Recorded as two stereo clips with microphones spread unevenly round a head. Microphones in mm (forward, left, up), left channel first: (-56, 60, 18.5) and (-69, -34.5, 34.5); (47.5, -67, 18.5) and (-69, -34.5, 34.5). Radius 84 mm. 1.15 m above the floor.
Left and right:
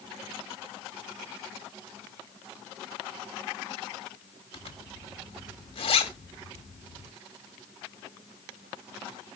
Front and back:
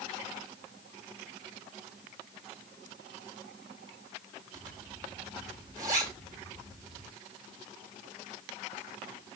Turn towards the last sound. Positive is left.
turn(degrees=100)